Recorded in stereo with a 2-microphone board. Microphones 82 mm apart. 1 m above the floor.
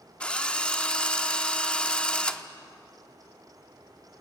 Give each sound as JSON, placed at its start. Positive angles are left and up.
{"t": 0.2, "sound": "a drill", "side_deg": 15, "distance_m": 0.9}